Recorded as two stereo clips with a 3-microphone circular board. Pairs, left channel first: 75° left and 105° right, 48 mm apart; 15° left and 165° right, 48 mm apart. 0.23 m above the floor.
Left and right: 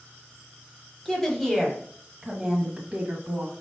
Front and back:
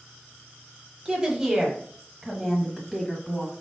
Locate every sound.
1.1 s a woman speaking: 140° left, 1.4 m; by 3.5 s 65° right, 1.7 m